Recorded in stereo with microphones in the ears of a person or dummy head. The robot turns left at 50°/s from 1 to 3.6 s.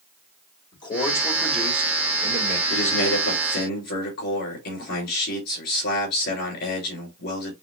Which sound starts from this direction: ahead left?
A man speaking, at 0.7 s.